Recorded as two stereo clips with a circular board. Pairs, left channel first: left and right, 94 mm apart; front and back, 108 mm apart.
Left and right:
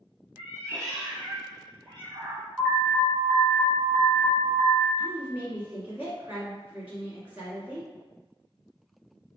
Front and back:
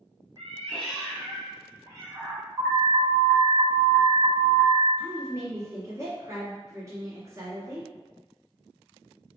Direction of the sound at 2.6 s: 160° right.